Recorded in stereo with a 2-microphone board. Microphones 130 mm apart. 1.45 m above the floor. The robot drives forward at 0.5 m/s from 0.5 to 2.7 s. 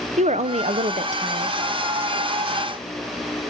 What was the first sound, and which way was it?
A woman speaking, 60° right (ahead or behind).